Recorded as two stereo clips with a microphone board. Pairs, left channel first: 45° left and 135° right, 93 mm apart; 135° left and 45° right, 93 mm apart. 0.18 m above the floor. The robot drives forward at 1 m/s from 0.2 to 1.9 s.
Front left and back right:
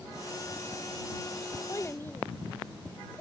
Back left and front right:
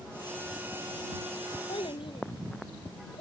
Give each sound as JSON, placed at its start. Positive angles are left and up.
{"t": 1.7, "sound": "a child speaking", "azimuth_deg": 110}